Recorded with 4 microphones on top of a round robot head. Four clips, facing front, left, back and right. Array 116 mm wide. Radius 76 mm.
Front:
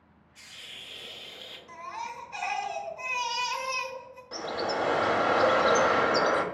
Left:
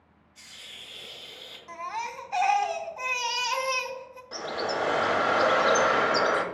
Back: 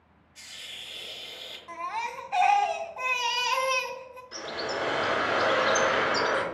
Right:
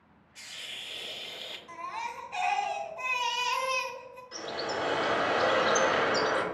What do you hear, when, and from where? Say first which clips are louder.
0.3 s a hiss: right 3 dB, back 2 dB; 100° right, 0.5 m
1.7 s a baby crying: left 3 dB, back 5 dB; 150° left, 0.5 m
4.3 s a bird: left 4 dB, front 3 dB; 45° left, 0.6 m